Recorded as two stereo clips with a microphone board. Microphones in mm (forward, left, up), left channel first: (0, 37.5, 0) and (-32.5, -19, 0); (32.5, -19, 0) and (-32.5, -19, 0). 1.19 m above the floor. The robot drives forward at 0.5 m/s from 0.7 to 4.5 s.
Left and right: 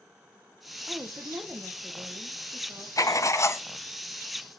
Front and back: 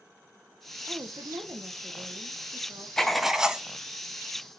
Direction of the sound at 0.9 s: 170° right.